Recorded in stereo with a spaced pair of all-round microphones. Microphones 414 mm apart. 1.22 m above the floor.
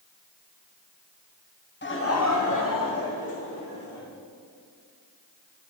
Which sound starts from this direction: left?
Laughter, at 1.8 s.